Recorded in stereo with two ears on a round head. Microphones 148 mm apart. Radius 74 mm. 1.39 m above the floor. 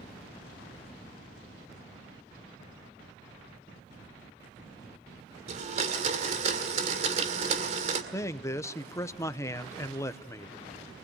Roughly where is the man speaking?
Centre.